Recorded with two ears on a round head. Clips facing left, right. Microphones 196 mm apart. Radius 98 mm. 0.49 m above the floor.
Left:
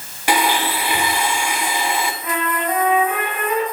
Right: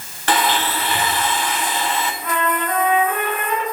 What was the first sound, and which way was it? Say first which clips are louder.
A blender: left 1 dB; 10° left (ahead or behind).